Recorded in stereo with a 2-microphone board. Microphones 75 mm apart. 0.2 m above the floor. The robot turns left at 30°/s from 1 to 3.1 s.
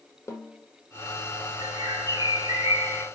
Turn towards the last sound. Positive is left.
turn(degrees=-155)